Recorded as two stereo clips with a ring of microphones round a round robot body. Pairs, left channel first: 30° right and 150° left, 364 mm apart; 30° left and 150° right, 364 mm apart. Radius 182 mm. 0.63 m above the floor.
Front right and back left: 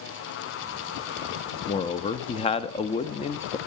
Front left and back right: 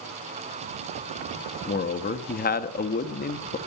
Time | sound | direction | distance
1.7 | a man speaking | 20° left | 0.5 m